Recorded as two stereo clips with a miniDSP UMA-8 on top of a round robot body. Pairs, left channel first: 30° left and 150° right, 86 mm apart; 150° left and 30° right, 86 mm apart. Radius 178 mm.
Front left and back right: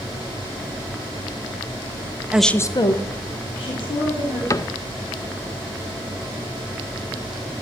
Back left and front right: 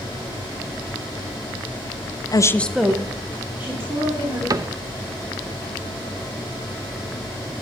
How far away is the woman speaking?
About 0.6 m.